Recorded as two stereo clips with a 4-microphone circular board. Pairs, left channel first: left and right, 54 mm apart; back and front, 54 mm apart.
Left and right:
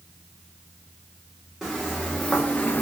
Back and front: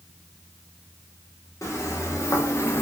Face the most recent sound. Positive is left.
turn(degrees=155)